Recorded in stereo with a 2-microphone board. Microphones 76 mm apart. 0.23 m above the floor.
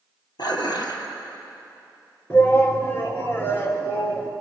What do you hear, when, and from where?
0.4 s dishes clattering: 70° left (ahead or behind), 3 m
2.3 s a shout: 30° left (ahead or behind), 3 m